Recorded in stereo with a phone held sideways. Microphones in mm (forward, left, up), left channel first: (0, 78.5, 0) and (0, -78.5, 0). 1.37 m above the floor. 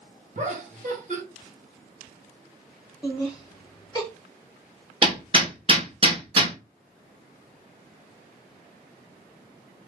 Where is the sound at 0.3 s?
50° right (ahead or behind), 1.4 m.